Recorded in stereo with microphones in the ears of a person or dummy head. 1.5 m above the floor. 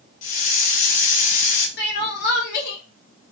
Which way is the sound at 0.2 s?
50° left (ahead or behind).